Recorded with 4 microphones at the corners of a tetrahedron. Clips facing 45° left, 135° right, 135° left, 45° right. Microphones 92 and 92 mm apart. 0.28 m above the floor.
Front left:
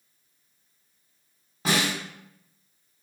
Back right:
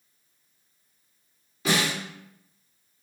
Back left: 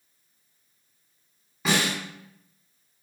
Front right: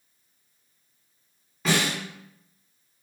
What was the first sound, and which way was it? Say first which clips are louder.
A snare drum: even, even; 50° left.